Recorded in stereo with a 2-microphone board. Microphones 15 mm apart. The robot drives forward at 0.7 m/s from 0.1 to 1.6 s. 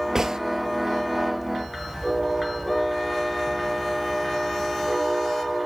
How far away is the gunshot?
About 0.9 m.